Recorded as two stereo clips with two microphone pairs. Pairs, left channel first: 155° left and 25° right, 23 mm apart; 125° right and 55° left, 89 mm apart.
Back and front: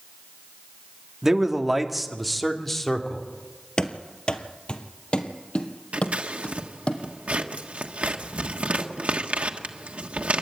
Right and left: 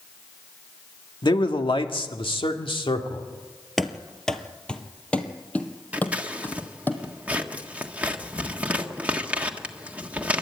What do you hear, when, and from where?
1.2 s a man speaking: 95° right, 1.8 m; by 3.3 s 135° right, 2.5 m
3.8 s running footsteps: 150° left, 1.3 m; by 6.9 s 170° left, 2.5 m
5.9 s scissors: 15° right, 1.4 m